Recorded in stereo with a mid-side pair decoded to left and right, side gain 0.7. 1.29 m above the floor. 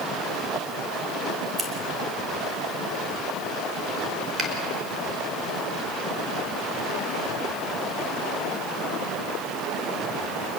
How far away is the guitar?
No guitar in this recording.